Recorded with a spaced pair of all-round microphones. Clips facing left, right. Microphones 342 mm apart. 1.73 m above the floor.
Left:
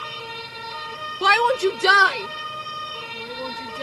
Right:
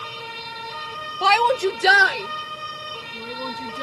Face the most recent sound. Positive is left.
turn(degrees=-25)  # may be behind; listen again after turning